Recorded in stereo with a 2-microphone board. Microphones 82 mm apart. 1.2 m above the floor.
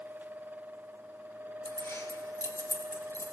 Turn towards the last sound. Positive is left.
turn(degrees=40)  # may be behind; listen again after turning